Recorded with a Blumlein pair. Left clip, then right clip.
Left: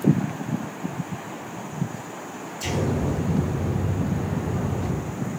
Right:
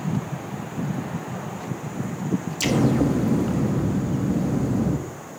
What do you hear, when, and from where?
2.6 s an explosion: 50° right, 0.9 m